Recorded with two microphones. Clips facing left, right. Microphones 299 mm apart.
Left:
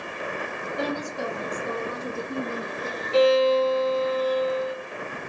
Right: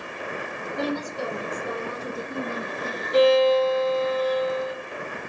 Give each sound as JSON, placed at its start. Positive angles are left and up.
{"t": 0.8, "sound": "a woman speaking", "side_deg": 0, "distance_m": 1.8}
{"t": 3.1, "sound": "a violin", "side_deg": 5, "distance_m": 2.0}